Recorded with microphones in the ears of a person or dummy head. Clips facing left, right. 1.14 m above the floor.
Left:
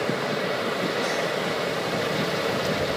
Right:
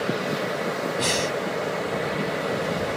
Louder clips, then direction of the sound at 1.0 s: Right 1 dB; 55° right (ahead or behind).